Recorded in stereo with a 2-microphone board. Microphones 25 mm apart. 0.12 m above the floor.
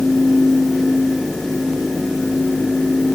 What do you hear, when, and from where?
Only background noise.